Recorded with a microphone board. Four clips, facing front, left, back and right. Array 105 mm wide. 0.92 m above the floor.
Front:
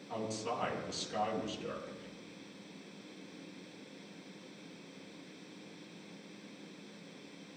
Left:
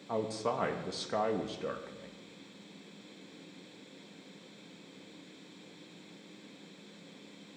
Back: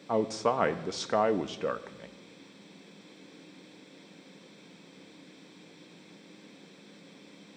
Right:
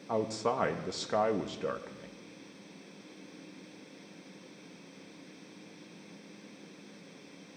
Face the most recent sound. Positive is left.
turn(degrees=-170)